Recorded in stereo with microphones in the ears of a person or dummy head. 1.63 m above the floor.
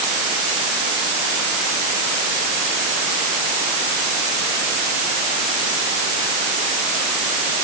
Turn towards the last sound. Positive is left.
No sound to turn to.